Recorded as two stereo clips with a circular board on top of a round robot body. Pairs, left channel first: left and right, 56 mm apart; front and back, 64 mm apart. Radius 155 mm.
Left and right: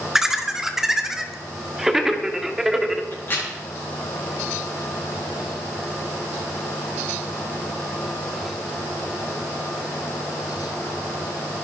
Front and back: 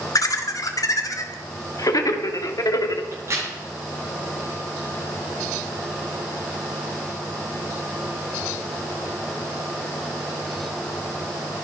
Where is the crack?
140° left, 9 m.